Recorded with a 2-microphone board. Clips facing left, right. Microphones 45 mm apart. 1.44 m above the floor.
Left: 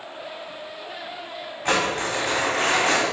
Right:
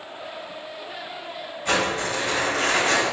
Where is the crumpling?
60° left (ahead or behind), 1.7 m.